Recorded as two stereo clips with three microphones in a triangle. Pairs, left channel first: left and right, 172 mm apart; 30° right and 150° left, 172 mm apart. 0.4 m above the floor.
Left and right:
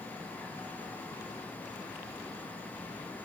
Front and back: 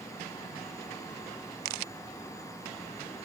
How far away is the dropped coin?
No dropped coin in this recording.